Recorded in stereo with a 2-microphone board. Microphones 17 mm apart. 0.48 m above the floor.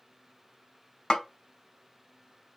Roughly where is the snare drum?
Left.